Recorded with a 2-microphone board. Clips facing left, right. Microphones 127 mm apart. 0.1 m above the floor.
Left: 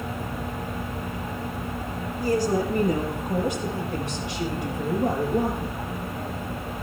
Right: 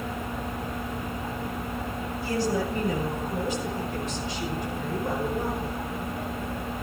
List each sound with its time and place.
2.2 s a woman speaking: 45° left (ahead or behind), 6 m; by 5.8 s 70° left (ahead or behind), 5 m